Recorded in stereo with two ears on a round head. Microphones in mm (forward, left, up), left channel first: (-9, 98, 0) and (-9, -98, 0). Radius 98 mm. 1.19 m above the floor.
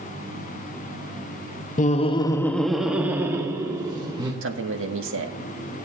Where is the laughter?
35° left (ahead or behind), 0.7 m; by 4.3 s 20° right (ahead or behind), 1.9 m.